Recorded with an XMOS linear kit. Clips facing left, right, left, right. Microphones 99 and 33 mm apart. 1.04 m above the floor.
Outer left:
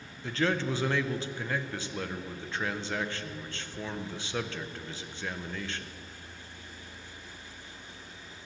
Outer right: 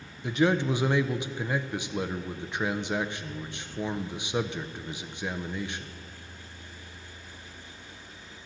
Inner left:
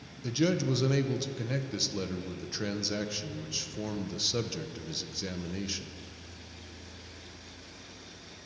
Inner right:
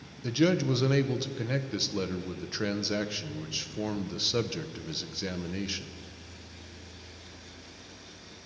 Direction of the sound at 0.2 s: 15° right (ahead or behind).